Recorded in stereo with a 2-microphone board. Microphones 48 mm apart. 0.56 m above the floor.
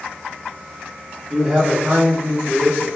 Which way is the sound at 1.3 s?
5° left (ahead or behind).